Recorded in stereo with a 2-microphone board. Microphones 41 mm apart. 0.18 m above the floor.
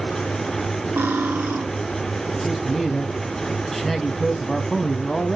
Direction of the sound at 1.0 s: 70° right (ahead or behind).